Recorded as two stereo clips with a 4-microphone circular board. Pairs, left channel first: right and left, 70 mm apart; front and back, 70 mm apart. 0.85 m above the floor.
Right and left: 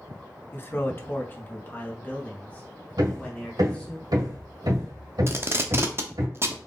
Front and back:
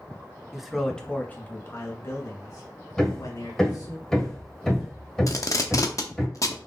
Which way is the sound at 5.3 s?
40° left.